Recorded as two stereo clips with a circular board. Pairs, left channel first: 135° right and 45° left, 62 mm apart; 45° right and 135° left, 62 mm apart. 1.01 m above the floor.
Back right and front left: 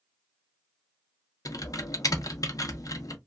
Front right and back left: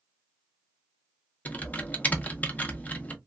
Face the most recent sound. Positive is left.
turn(degrees=-110)